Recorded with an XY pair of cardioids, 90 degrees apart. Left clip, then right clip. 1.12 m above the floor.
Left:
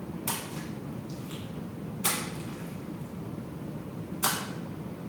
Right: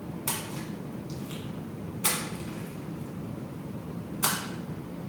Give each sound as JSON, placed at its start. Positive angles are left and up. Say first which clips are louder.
{"t": 0.3, "sound": "a splash", "louder": "right 1 dB", "azimuth_deg": -20, "distance_m": 1.2}